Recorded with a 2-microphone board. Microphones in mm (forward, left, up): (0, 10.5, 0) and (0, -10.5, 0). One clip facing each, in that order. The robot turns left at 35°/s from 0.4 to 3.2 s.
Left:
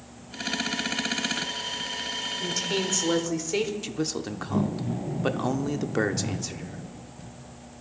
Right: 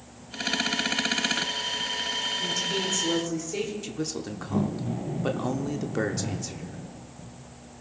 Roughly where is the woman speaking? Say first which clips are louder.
Even; left.